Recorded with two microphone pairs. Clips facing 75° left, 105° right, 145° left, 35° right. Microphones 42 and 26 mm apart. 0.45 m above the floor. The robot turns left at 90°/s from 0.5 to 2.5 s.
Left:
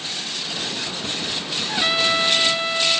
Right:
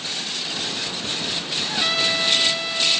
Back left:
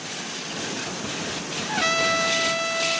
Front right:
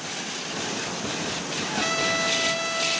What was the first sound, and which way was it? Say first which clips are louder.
A trumpet: left 3 dB, back left 4 dB; 140° left.